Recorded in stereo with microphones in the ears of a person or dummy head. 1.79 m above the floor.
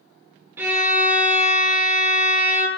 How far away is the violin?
About 0.6 m.